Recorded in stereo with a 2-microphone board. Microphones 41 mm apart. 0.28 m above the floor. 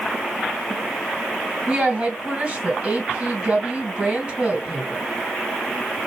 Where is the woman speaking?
25° right (ahead or behind), 2 m.